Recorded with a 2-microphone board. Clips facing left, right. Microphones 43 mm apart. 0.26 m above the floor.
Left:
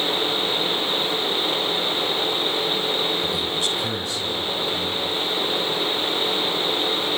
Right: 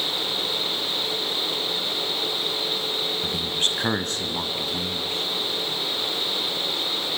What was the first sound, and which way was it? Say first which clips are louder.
A man speaking: left 2 dB; 35° right (ahead or behind).